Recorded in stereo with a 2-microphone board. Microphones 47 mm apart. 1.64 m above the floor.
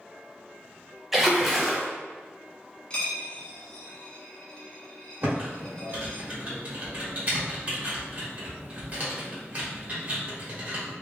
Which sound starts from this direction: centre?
A splash, at 1.1 s.